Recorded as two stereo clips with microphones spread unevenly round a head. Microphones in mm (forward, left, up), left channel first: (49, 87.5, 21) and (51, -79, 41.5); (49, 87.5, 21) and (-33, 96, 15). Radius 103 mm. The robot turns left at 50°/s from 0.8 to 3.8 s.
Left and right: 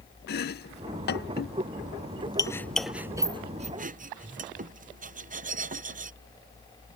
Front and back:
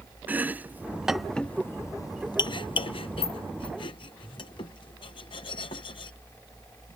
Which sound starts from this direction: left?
Chopping, at 0.3 s.